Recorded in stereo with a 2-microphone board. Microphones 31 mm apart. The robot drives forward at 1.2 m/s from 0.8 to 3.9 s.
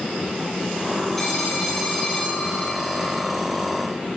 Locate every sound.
1.2 s a phone ringing: 10° left (ahead or behind), 5.5 m; by 3.3 s 5° left (ahead or behind), 8 m